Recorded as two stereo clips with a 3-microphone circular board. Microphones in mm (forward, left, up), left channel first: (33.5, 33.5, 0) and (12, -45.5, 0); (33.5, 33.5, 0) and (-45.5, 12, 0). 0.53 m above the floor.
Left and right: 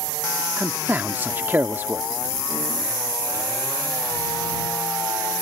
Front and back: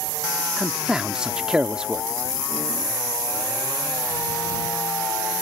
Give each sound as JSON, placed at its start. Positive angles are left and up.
{"t": 0.6, "sound": "a man speaking", "azimuth_deg": -105}